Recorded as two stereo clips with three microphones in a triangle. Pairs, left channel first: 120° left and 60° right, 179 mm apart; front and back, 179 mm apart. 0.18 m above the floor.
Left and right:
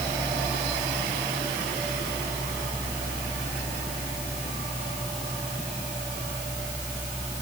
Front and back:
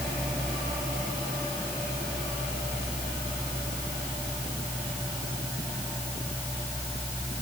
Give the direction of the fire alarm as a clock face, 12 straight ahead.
I don't hear a fire alarm.